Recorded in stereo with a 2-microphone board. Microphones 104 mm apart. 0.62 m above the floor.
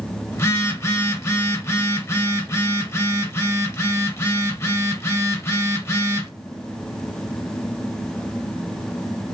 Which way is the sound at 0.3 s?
25° left (ahead or behind).